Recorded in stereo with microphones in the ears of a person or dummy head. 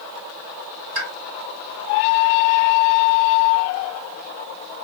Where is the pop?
40° right (ahead or behind), 2 m.